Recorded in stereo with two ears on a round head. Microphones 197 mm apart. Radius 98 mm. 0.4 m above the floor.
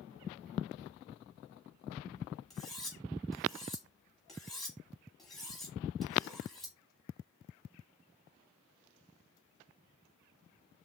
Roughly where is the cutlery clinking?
Centre.